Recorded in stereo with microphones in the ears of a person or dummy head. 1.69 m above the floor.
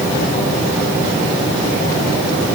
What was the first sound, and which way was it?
Only background noise.